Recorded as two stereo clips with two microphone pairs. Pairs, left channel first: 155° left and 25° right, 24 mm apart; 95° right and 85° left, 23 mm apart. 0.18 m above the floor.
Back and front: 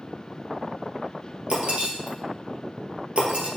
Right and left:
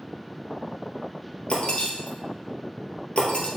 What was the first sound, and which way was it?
Breaking glass, 60° right.